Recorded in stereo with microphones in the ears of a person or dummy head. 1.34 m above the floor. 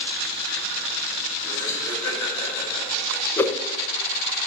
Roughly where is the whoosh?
Centre.